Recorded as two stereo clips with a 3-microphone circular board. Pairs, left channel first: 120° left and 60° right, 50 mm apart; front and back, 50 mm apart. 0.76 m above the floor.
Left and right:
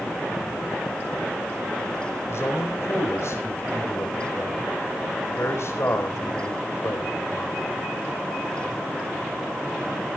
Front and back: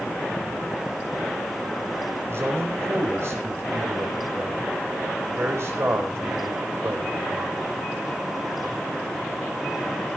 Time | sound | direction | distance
2.3 | a man speaking | 150° left | 4.5 m